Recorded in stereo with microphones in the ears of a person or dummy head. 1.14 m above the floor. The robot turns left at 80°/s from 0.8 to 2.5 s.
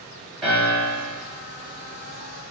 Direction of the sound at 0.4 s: 5° left.